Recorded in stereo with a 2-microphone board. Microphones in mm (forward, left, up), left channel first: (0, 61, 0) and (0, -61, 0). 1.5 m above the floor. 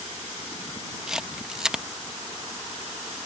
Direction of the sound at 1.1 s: 5° right (ahead or behind).